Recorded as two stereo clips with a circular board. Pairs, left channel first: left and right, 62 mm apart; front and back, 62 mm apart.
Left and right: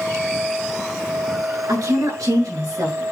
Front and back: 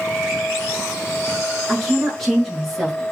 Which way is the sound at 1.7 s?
90° right.